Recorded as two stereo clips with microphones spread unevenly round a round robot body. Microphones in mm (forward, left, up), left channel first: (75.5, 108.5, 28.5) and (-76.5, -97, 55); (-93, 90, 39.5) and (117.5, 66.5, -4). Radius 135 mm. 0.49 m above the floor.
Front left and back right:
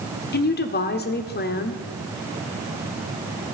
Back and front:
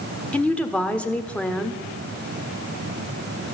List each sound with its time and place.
0.3 s a woman speaking: 80° left, 1.5 m